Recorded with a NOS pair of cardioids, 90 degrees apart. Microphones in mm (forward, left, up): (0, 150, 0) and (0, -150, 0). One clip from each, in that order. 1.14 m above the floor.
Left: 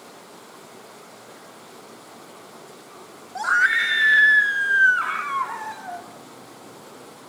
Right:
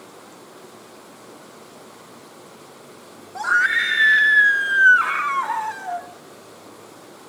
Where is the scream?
10° left, 1.3 m; by 6.1 s 35° right, 2 m.